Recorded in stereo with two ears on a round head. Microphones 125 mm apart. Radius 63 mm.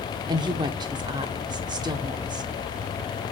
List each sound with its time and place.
0.3 s a woman speaking: 30° right (ahead or behind), 0.9 m